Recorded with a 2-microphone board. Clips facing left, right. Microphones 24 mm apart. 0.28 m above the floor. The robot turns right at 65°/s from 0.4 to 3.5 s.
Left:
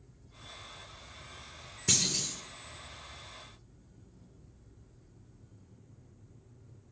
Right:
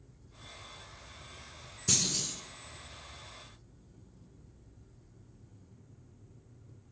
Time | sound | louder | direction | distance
1.9 | a clunk | left 1 dB | 155° left | 1.1 m